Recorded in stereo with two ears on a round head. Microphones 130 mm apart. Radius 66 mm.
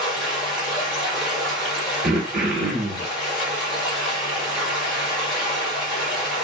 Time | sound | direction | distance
0.0 | running water | 5° right (ahead or behind) | 1.2 m
2.0 | throat clearing | 60° right (ahead or behind) | 1.1 m